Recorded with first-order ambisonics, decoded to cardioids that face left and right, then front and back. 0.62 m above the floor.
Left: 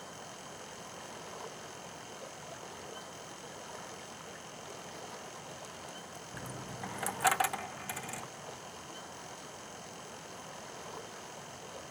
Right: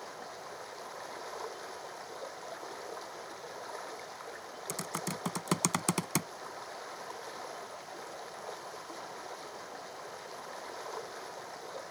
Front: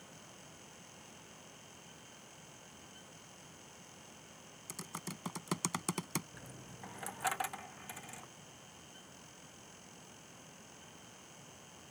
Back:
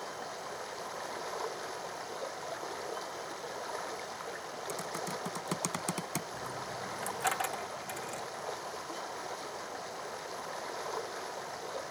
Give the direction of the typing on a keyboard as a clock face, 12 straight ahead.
3 o'clock.